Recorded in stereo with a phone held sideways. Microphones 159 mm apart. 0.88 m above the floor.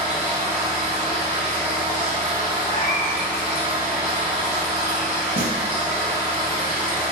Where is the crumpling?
No crumpling in this recording.